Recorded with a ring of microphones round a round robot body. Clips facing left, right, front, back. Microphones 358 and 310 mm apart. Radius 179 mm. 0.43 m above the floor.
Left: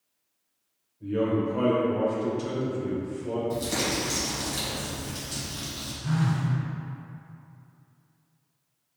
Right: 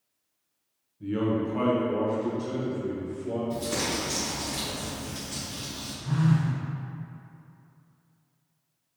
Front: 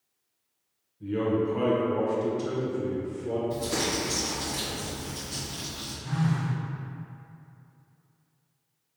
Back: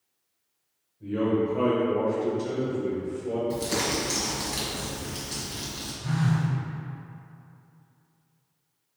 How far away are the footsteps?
No footsteps in this recording.